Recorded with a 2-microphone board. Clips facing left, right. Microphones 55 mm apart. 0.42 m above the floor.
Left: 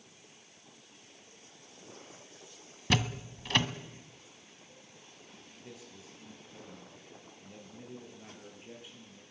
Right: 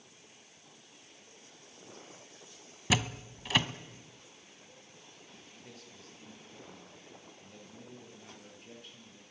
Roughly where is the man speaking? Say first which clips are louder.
Left 4 dB; centre.